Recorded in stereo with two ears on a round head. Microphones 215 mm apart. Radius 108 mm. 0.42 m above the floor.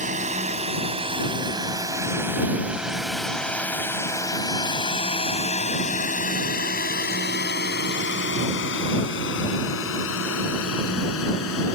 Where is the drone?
30° right (ahead or behind); by 11.7 s 65° left (ahead or behind).